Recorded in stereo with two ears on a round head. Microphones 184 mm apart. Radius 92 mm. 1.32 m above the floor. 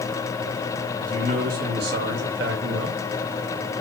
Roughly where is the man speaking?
Right.